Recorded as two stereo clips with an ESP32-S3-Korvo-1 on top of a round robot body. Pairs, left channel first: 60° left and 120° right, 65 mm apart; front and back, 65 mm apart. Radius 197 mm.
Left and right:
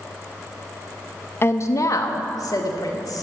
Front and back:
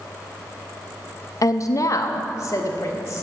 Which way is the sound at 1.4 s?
15° left.